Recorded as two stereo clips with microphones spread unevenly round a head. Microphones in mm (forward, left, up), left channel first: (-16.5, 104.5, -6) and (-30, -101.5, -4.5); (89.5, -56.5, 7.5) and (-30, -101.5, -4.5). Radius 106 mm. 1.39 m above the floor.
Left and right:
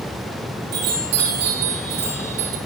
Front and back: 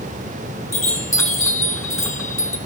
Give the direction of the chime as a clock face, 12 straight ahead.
2 o'clock.